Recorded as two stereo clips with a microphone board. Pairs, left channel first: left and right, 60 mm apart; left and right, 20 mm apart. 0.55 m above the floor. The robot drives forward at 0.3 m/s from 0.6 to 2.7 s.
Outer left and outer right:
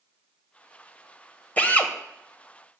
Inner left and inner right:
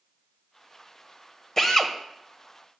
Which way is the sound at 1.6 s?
25° left (ahead or behind).